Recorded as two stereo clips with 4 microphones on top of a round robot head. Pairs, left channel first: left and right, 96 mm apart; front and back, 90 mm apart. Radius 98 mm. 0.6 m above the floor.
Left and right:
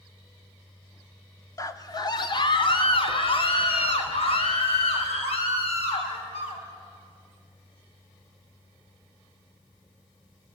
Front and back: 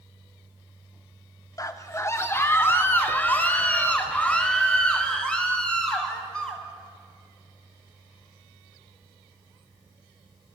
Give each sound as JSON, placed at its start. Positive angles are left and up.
{"t": 1.6, "sound": "a scream", "azimuth_deg": 45, "distance_m": 1.9}